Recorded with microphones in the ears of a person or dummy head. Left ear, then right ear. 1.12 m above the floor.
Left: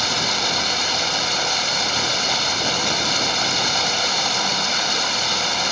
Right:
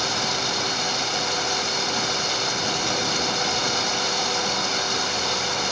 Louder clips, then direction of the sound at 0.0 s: Left 4 dB; 15° left (ahead or behind).